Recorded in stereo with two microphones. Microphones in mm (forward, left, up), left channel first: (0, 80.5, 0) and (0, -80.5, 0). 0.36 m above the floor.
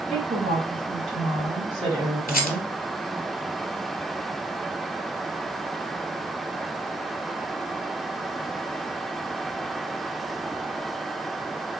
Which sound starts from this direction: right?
A woman speaking, at 0.1 s.